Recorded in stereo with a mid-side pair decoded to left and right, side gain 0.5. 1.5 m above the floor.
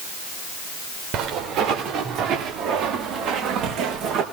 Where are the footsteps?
70° right, 10 m.